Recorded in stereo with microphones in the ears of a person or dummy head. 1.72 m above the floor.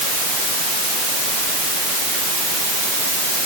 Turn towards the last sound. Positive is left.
No sound to turn to.